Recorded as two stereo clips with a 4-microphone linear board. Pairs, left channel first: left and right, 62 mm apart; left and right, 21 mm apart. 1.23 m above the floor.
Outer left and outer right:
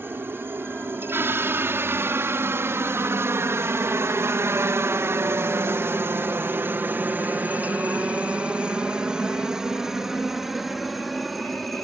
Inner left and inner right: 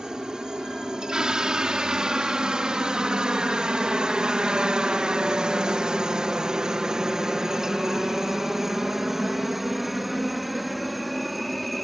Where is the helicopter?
35° right (ahead or behind); by 11.8 s centre (ahead or behind).